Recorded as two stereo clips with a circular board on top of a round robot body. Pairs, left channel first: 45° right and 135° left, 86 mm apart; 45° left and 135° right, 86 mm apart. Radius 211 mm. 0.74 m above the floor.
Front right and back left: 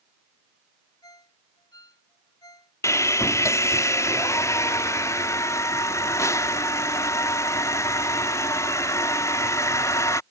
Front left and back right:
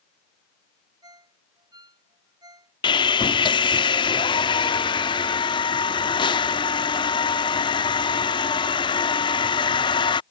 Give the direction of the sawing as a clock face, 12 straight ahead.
12 o'clock.